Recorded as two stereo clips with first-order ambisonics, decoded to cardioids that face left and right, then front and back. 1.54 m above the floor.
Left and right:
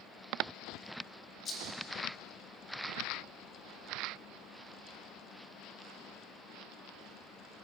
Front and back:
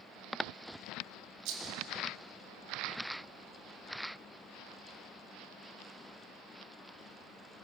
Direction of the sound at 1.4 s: 160° left.